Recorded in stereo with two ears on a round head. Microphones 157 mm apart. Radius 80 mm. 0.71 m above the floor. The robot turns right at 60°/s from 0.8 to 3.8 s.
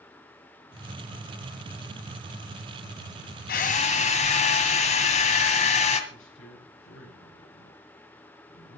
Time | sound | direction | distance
3.5 | a drill | 60° left (ahead or behind) | 2.0 m
6.1 | a man speaking | 70° left (ahead or behind) | 7 m